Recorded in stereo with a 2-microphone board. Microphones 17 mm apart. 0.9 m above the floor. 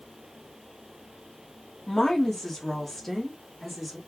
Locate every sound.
1.9 s a woman speaking: 30° left (ahead or behind), 1.8 m; by 4.0 s 5° right (ahead or behind), 2.0 m